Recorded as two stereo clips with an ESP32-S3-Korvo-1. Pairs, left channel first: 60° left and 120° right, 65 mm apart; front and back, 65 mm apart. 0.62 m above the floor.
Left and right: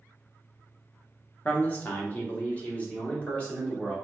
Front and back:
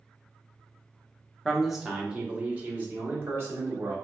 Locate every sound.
1.4 s a man speaking: 80° left, 0.7 m; by 4.0 s 130° left, 1.6 m